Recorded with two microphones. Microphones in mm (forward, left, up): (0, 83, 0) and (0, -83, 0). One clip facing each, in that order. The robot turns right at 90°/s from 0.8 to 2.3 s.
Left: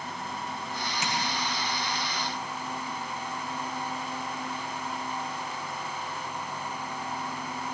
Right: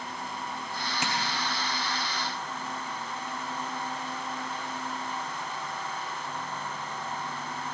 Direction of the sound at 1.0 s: 60° right (ahead or behind).